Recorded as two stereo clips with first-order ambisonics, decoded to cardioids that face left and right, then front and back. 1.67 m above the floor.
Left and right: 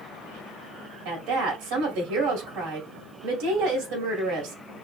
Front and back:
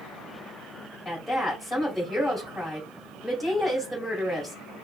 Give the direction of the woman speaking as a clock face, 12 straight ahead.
3 o'clock.